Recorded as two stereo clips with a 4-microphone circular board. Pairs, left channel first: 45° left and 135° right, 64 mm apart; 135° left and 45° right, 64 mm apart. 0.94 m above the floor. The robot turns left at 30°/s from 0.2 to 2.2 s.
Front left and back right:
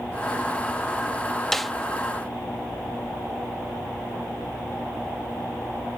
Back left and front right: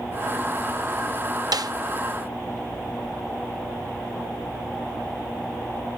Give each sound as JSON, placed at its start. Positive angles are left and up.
{"t": 1.5, "sound": "a snare drum", "azimuth_deg": -40, "distance_m": 0.6}